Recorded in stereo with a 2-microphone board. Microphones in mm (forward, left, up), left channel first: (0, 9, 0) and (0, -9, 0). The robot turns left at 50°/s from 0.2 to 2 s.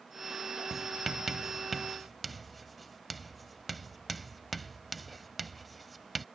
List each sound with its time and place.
0.7 s writing: 20° right (ahead or behind); by 6.2 s 5° left (ahead or behind)